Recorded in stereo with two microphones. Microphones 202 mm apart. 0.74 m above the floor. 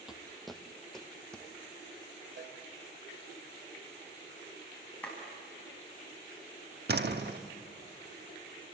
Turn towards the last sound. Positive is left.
turn(degrees=-55)  # may be behind; listen again after turning